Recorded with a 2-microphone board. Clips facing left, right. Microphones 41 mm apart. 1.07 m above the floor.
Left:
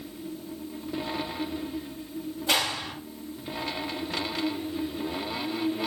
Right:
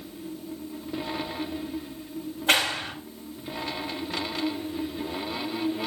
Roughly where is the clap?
Right.